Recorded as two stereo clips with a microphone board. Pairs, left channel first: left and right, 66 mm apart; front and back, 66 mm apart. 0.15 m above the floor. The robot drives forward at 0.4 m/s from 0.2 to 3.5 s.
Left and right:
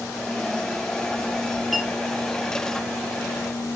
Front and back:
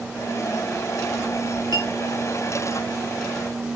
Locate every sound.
1.7 s a clink: straight behind, 2.5 m